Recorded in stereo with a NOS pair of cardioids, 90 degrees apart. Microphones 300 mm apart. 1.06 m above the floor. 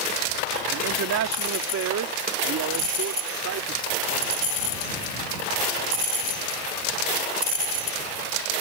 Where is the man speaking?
65° right; by 4.3 s 55° right.